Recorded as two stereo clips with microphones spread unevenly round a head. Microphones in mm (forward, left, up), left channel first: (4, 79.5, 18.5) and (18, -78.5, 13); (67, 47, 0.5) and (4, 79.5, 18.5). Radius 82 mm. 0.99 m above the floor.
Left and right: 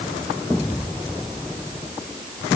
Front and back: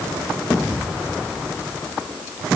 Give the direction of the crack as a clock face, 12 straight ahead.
I don't hear a crack.